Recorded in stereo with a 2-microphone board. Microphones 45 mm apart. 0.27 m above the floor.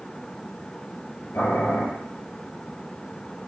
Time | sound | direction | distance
1.3 | boiling | 75° left (ahead or behind) | 4.5 m